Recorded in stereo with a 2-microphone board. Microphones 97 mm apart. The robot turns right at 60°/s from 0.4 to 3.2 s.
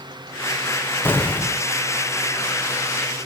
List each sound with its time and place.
1.1 s an explosion: 145° left, 0.6 m; by 1.6 s straight behind, 0.6 m